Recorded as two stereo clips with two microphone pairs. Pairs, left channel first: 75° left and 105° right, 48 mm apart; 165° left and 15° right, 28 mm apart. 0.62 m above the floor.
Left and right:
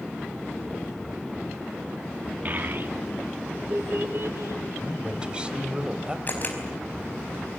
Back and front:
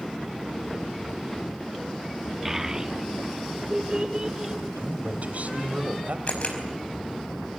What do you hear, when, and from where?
2.5 s a child speaking: 85° right, 0.7 m; by 4.6 s 75° right, 3 m
4.8 s a man speaking: 35° right, 3 m
6.3 s a camera shutter: 125° left, 5 m